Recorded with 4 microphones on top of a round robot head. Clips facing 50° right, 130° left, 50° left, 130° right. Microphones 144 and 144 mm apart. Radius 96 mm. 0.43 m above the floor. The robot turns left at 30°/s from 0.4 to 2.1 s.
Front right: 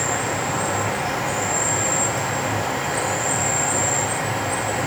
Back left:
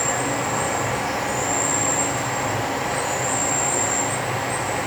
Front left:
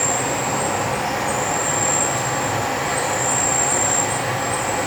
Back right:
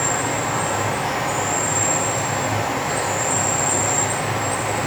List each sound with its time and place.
0.0 s an insect: 10° right, 1.9 m; by 4.9 s 65° right, 1.9 m